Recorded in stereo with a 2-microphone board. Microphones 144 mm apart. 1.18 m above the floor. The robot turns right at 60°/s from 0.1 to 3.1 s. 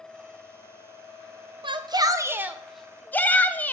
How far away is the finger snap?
No finger snap in this recording.